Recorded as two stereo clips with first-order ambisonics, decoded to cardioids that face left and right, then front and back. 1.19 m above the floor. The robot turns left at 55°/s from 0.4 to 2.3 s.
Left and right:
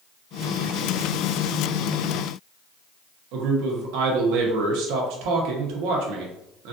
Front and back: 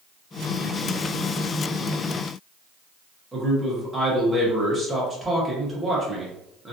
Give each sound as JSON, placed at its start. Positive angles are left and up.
{"t": 3.3, "sound": "a man speaking", "azimuth_deg": -95, "distance_m": 1.0}